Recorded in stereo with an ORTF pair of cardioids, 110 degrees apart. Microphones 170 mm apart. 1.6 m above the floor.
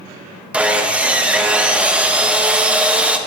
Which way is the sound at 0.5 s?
5° right.